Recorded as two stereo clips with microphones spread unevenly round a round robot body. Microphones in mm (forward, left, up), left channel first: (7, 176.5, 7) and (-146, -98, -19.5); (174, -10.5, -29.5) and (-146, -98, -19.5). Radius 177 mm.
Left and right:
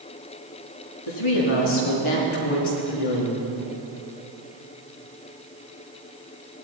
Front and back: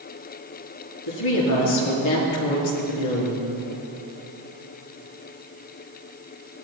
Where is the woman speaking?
55° left, 4.5 m.